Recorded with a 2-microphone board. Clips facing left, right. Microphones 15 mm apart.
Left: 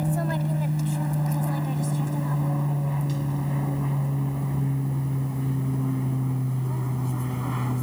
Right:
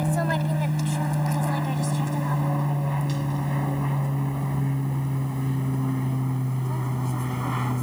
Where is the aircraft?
30° right (ahead or behind); by 7.8 s 20° right (ahead or behind).